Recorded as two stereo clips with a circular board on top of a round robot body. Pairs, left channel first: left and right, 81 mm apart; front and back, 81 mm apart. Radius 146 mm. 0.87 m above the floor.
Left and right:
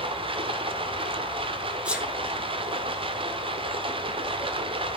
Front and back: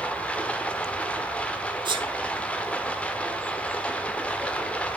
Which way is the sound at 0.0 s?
75° right.